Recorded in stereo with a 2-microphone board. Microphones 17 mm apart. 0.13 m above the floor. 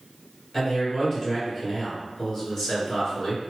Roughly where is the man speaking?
Left.